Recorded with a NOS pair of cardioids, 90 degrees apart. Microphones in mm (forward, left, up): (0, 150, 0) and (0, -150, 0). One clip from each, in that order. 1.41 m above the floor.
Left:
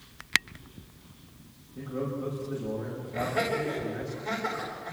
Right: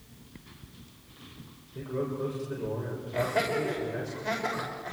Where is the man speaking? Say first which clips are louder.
Right 1 dB; 60° right, 7 m.